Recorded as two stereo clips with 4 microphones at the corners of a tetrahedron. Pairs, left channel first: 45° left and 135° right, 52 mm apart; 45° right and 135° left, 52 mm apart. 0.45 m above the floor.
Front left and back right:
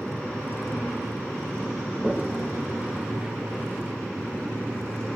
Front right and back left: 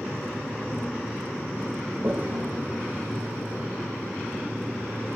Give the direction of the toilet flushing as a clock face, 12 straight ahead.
7 o'clock.